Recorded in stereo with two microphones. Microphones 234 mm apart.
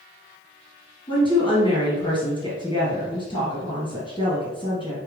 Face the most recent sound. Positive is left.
turn(degrees=20)  # may be behind; listen again after turning